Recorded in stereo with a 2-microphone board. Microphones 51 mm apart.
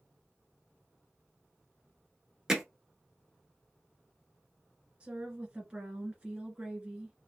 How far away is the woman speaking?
About 1.6 m.